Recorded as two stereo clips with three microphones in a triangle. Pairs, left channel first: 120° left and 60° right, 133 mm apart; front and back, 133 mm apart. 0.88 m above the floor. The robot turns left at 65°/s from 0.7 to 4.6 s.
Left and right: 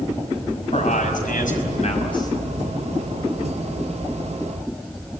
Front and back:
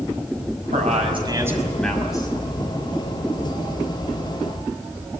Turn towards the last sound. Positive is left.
turn(degrees=-95)